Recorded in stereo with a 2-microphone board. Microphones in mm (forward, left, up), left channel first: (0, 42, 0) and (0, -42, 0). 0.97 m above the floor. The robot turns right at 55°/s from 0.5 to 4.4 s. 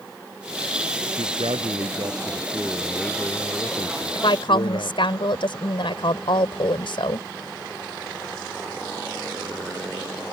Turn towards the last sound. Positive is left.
turn(degrees=80)